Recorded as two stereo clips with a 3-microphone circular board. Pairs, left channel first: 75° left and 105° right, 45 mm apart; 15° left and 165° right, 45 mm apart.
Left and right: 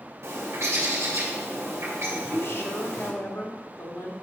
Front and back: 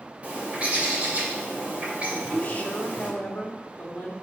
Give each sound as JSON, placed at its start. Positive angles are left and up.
{"t": 0.2, "sound": "a bird", "azimuth_deg": -105, "distance_m": 2.5}
{"t": 2.1, "sound": "a woman speaking", "azimuth_deg": 65, "distance_m": 1.8}